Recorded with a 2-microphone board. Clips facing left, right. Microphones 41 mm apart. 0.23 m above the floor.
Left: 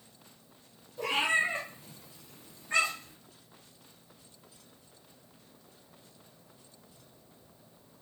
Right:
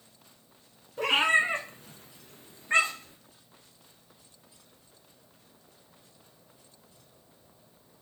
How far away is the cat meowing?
About 0.8 m.